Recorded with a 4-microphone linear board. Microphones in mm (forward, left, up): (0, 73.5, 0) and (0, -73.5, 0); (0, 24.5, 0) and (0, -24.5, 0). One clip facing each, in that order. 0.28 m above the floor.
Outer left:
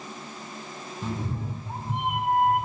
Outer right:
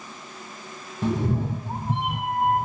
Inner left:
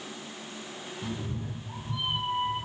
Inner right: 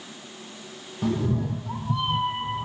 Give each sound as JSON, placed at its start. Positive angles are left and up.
{"t": 1.0, "sound": "a cat meowing", "side_deg": -70, "distance_m": 1.0}